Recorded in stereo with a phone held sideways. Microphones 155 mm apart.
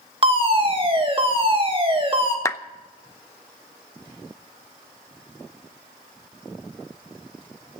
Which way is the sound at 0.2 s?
35° right (ahead or behind).